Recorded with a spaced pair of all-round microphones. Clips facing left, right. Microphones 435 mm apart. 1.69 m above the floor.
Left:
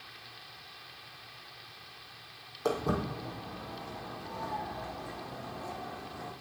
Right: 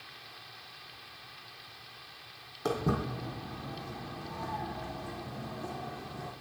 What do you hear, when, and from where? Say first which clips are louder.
2.6 s footsteps: even; 35° right (ahead or behind), 4 m; by 6.3 s 50° right (ahead or behind), 5.5 m